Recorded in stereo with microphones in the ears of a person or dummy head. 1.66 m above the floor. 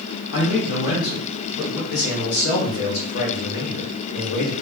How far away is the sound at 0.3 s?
About 1.4 m.